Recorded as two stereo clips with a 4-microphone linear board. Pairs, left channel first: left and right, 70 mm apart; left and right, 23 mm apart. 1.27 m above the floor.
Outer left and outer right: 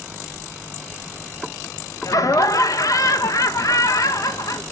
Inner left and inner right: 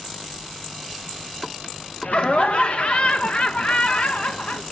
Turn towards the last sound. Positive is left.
turn(degrees=50)  # may be behind; listen again after turning